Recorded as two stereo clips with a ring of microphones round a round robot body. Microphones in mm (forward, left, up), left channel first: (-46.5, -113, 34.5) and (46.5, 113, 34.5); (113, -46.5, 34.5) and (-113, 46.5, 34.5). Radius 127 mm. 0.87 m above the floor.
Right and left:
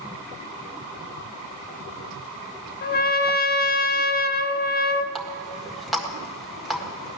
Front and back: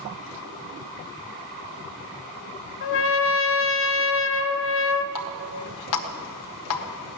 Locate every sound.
2.8 s a trumpet: 60° right, 0.6 m
5.2 s a running tap: 20° right, 1.5 m